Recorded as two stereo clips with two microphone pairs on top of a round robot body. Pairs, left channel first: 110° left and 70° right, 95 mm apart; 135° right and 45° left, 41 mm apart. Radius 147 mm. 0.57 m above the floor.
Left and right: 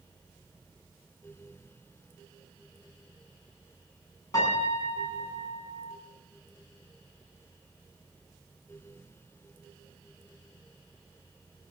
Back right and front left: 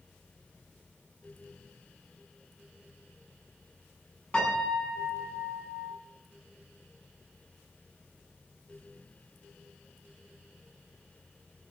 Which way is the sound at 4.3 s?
155° left.